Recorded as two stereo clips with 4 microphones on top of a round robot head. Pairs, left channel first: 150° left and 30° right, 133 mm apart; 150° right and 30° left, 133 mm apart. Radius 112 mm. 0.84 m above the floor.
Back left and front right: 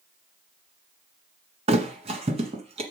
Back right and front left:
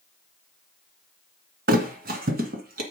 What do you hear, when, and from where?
1.7 s a thud: 15° left, 1.4 m